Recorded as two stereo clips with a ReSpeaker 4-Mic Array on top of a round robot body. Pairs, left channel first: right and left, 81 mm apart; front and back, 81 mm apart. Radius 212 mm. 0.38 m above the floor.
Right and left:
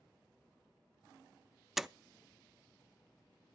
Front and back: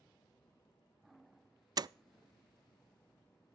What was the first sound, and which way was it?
A door slam, 175° left.